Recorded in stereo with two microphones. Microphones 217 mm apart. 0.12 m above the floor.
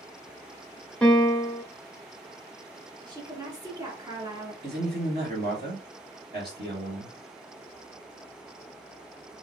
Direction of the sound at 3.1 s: 20° right (ahead or behind).